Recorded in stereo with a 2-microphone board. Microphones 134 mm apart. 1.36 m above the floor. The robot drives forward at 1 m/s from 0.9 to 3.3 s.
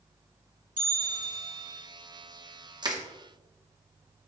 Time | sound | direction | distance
0.8 | a bell | 80° right | 3 m
2.8 | crushing | 30° right (ahead or behind) | 1.0 m